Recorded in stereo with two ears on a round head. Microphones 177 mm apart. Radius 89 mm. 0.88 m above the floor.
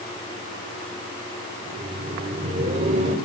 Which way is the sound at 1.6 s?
25° right (ahead or behind).